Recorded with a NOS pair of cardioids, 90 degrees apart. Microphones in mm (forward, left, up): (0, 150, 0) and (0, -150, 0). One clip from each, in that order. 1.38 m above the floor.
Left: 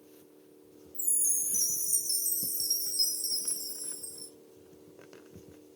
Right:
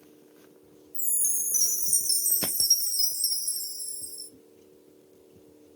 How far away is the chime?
About 0.6 m.